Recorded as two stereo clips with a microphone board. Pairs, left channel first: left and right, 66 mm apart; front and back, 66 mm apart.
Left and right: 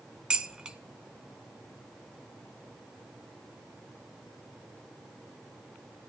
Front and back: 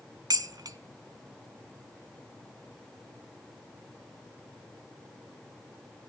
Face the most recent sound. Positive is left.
turn(degrees=-165)